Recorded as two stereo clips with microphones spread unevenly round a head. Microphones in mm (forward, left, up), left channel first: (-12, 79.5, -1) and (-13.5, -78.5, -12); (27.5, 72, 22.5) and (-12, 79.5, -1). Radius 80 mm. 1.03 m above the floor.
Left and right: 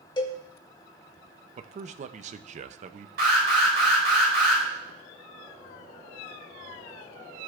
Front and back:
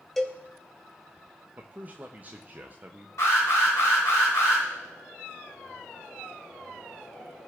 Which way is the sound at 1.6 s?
135° right.